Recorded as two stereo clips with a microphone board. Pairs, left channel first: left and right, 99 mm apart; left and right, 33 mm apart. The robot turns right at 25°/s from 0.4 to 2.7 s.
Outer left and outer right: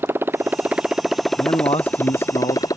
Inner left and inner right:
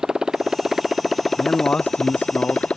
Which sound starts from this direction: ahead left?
A man speaking, at 1.4 s.